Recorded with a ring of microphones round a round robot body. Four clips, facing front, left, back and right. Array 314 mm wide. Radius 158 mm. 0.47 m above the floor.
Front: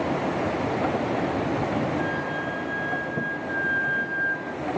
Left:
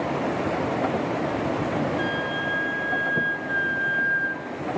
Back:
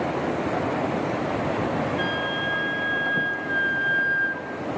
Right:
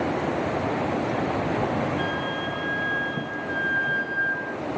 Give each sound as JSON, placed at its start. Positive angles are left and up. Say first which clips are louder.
{"t": 2.0, "sound": "a flute", "louder": "left 1 dB, back 1 dB", "azimuth_deg": -175, "distance_m": 1.2}